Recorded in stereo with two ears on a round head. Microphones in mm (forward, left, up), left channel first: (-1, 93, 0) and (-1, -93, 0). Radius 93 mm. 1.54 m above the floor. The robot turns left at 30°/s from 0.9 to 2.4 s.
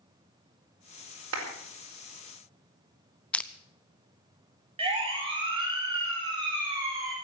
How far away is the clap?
About 5 m.